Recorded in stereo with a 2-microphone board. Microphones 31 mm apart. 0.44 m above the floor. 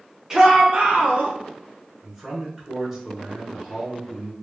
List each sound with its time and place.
0.3 s a shout: 15° right (ahead or behind), 0.8 m; by 1.3 s 55° right (ahead or behind), 1.3 m
2.0 s a man speaking: 15° right (ahead or behind), 1.5 m